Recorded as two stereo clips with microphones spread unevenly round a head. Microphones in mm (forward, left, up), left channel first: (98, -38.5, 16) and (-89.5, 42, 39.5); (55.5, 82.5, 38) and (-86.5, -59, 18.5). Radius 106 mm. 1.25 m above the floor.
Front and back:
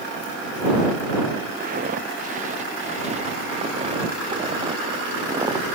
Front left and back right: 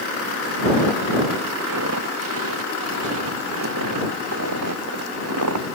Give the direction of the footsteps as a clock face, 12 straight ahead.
5 o'clock.